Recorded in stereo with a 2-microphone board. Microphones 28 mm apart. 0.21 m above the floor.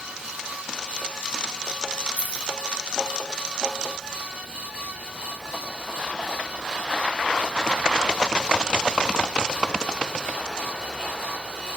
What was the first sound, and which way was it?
Keys jangling, 60° left (ahead or behind).